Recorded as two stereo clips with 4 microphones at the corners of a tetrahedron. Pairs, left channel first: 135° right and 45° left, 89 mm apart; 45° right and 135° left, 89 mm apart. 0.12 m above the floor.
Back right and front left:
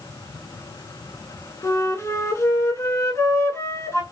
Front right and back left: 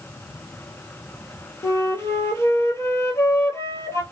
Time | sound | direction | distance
1.6 | a flute | 90° right | 0.6 m